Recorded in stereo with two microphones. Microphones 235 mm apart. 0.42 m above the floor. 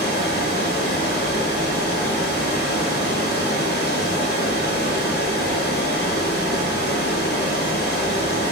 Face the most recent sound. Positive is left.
turn(degrees=45)  # may be behind; listen again after turning